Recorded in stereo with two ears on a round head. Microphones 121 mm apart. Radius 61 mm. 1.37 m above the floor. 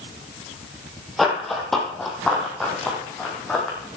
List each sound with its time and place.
1.2 s running footsteps: centre (ahead or behind), 3.5 m; by 3.8 s 5° left (ahead or behind), 5 m